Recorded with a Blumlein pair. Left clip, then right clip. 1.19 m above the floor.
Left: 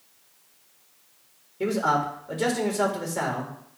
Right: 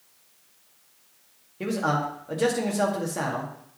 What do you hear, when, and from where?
1.6 s a man speaking: straight ahead, 2.0 m